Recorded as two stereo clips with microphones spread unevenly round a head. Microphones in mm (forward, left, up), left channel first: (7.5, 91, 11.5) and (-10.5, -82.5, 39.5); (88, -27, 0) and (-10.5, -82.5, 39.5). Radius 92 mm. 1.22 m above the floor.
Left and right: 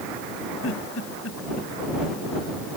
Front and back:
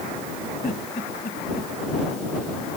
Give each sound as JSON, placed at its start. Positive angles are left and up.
{"t": 0.6, "sound": "a giggle", "azimuth_deg": 70}